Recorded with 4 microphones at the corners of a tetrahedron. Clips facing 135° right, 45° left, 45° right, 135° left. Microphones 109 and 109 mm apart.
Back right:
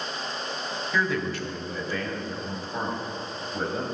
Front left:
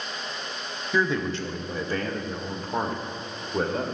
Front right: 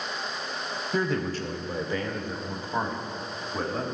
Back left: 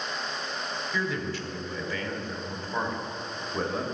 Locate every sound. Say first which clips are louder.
0.9 s a man speaking: front left 3 dB, front right 5 dB; 20° right, 1.1 m; by 3.9 s 50° left, 1.9 m